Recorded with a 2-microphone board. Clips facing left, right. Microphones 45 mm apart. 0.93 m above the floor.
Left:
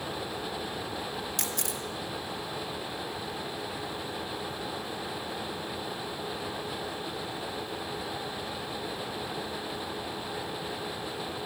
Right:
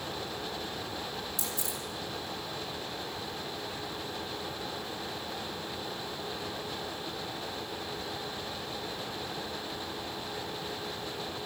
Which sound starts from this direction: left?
A camera shutter, at 1.4 s.